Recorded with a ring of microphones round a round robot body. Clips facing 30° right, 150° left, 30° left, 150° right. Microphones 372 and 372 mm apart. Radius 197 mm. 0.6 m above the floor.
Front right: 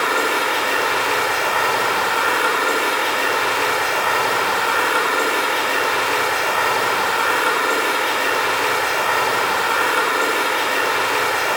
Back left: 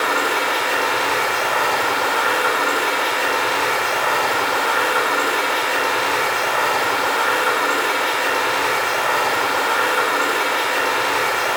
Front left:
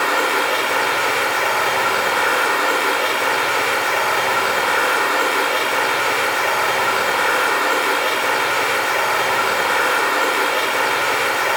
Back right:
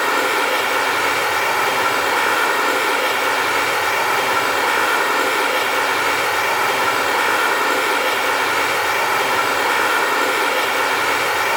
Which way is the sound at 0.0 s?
95° right.